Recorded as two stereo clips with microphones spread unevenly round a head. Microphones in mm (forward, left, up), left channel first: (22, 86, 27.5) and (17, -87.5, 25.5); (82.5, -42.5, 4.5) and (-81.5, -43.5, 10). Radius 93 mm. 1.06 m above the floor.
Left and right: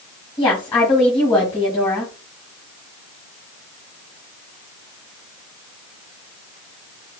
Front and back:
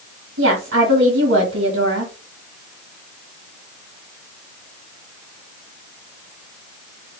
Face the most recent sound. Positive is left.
turn(degrees=160)